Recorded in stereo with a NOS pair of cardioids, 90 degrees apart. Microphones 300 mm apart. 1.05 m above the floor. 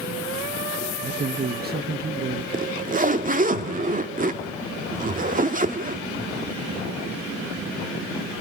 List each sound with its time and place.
1.0 s a man speaking: 35° right, 1.2 m
2.5 s a zipper: 30° right, 1.9 m